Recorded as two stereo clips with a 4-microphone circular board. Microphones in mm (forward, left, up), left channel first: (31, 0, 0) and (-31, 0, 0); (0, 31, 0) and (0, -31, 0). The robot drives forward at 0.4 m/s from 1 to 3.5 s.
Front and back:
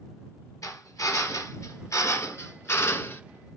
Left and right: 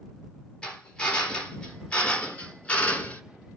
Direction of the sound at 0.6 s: 15° left.